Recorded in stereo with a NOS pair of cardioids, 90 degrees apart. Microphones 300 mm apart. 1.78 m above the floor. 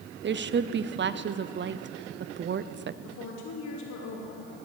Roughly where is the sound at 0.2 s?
Ahead right.